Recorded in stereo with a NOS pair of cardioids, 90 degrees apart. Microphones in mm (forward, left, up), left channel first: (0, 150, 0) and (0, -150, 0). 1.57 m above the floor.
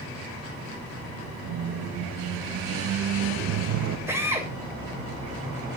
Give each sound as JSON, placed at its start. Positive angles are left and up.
{"t": 1.4, "sound": "a squeak", "azimuth_deg": -65, "distance_m": 1.6}
{"t": 4.1, "sound": "a drill", "azimuth_deg": -10, "distance_m": 6.5}